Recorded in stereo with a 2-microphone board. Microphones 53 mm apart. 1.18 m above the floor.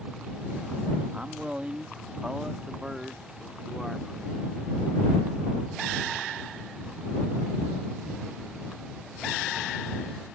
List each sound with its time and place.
1.1 s a man speaking: 25° right (ahead or behind); by 4.6 s centre (ahead or behind)